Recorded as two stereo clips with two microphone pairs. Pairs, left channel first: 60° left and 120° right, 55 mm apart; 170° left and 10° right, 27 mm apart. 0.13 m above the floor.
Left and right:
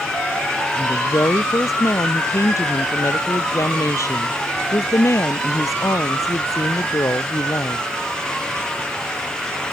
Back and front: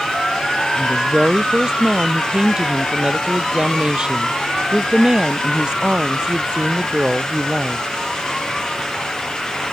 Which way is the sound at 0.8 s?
45° left.